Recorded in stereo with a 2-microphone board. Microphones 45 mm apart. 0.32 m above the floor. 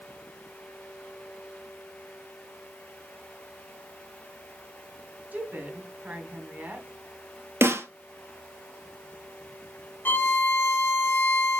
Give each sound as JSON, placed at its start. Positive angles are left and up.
{"t": 5.3, "sound": "a woman speaking", "side_deg": -40, "distance_m": 3.0}
{"t": 7.6, "sound": "a snare drum", "side_deg": -70, "distance_m": 1.2}
{"t": 10.1, "sound": "a violin", "side_deg": 50, "distance_m": 1.2}